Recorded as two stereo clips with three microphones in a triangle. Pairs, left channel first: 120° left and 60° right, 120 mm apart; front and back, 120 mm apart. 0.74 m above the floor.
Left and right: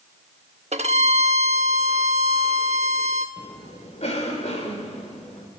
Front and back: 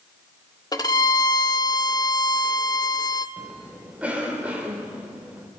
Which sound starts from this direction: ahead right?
A violin, at 0.7 s.